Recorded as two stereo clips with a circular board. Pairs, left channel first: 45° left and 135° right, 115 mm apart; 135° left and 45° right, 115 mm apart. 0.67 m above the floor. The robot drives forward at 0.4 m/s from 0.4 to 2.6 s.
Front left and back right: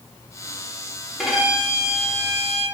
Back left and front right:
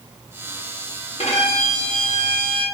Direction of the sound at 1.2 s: 140° left.